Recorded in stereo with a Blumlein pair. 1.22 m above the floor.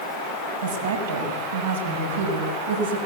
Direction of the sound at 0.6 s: 70° right.